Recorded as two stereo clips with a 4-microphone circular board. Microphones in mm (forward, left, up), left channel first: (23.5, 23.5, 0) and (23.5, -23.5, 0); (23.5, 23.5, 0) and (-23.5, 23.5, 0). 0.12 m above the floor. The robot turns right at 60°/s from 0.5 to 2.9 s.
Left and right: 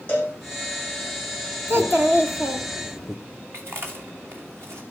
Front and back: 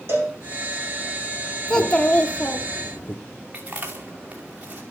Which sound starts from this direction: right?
A child speaking, at 1.7 s.